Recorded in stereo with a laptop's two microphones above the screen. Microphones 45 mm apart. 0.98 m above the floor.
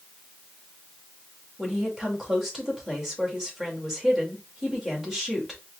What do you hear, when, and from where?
1.6 s a woman speaking: 10° right (ahead or behind), 2 m